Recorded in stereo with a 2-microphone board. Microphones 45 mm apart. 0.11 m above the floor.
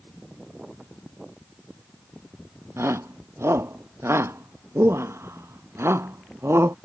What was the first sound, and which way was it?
A shout, 85° right.